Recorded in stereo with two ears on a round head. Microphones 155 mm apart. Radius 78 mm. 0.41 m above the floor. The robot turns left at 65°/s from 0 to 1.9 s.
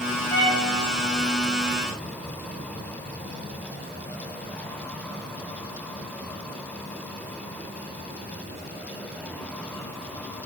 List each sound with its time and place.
0.3 s a violin: 30° left (ahead or behind), 3.5 m; by 0.7 s 50° left (ahead or behind), 3.5 m